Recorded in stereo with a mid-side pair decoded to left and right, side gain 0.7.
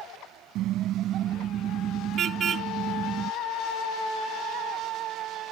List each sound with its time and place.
0.6 s a car horn: 55° right; by 3.3 s 40° right